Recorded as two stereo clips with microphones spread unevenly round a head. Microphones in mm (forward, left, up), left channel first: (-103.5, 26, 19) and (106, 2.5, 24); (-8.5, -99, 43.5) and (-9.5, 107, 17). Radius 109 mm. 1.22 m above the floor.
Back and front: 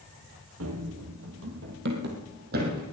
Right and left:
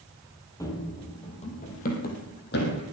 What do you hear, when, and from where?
0.6 s running footsteps: 20° right, 2.5 m; by 2.8 s 55° right, 3.5 m